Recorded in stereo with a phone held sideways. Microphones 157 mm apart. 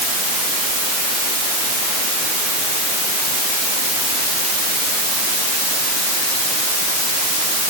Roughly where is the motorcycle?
I don't hear a motorcycle.